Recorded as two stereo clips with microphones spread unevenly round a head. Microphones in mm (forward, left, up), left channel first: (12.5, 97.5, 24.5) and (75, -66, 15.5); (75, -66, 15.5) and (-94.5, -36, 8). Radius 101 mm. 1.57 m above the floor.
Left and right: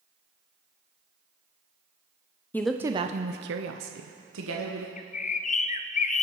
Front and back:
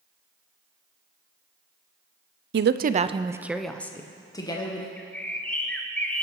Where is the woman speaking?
170° right, 0.6 m; by 4.9 s 75° right, 1.5 m.